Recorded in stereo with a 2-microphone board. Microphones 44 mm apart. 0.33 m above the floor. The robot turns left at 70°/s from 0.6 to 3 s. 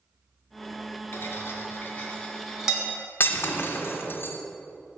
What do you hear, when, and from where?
1.1 s cutlery clinking: 70° left (ahead or behind), 1.9 m; by 2.9 s 25° right (ahead or behind), 1.9 m
3.2 s breaking glass: 55° left (ahead or behind), 1.2 m